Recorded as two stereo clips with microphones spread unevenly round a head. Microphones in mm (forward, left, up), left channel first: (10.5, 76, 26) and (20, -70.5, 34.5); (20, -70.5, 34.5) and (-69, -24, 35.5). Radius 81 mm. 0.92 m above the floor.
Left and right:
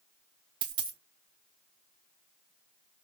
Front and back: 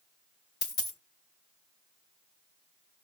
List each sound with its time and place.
0.6 s a dropped coin: 55° right, 0.8 m